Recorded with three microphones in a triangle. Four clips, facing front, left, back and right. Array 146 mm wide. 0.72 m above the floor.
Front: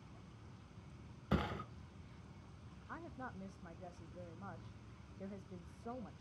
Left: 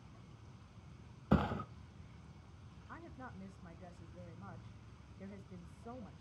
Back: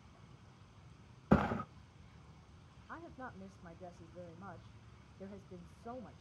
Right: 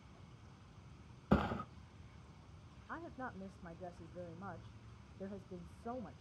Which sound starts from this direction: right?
A woman speaking, at 2.9 s.